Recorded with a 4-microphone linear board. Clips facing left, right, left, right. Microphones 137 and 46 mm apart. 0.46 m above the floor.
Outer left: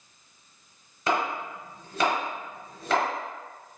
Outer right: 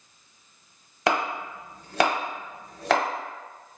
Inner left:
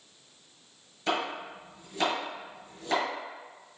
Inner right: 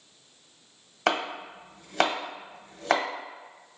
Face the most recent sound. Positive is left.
turn(degrees=-80)